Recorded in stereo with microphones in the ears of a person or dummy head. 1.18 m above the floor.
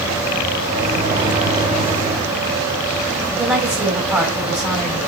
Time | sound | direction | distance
0.7 | a microwave | 30° right (ahead or behind) | 5 m
3.3 | a woman speaking | centre (ahead or behind) | 4 m